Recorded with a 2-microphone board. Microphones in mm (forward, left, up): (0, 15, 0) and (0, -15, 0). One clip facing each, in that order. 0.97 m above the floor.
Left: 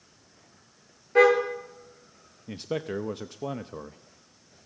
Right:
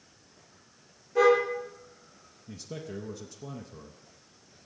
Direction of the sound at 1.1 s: 55° left (ahead or behind).